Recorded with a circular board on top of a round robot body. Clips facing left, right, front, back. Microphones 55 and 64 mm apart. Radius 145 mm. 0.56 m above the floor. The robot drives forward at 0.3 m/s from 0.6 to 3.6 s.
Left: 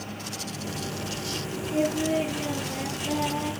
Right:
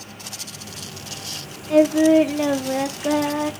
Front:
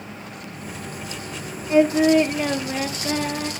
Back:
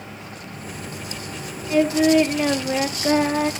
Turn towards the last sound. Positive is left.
turn(degrees=-125)